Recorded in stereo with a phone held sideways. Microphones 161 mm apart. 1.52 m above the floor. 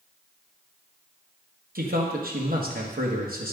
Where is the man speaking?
65° right (ahead or behind), 1.4 m.